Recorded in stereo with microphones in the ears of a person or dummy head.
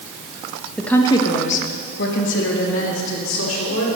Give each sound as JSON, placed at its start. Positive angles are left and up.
{"t": 0.8, "sound": "a woman speaking", "side_deg": 5, "distance_m": 1.2}